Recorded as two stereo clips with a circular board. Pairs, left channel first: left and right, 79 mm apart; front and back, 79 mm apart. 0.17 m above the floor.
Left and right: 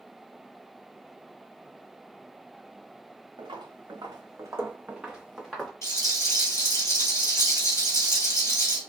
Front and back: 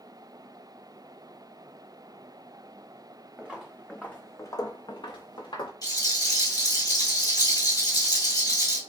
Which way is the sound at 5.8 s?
35° left.